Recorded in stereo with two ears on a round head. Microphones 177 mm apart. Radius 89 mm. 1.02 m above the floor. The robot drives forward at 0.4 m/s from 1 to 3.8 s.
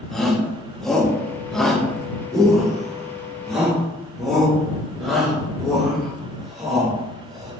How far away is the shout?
About 0.6 m.